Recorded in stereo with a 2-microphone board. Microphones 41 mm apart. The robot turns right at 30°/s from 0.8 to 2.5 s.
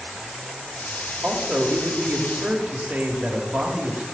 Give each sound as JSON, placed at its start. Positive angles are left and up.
{"t": 1.2, "sound": "a man speaking", "azimuth_deg": -80, "distance_m": 1.1}